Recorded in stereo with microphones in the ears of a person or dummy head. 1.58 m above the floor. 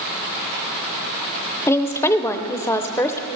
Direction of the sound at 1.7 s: 15° left (ahead or behind).